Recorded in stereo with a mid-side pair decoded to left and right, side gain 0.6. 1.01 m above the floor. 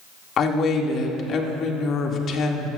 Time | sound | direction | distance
0.4 | a woman speaking | 50° left | 1.7 m